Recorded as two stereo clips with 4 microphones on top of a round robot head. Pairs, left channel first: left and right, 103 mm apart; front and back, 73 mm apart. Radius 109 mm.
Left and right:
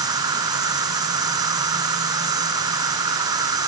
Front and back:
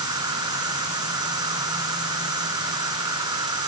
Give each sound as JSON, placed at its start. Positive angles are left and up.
{"t": 0.0, "sound": "an insect", "azimuth_deg": -140}